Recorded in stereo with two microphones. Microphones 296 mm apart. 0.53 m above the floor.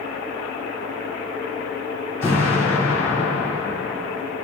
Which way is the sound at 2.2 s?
50° left (ahead or behind).